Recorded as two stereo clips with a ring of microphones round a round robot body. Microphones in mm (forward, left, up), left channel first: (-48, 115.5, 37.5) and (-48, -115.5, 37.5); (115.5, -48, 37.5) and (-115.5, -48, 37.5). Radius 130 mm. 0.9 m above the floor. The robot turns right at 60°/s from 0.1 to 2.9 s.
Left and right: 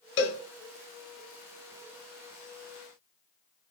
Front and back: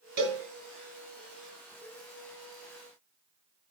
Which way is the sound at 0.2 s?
125° left.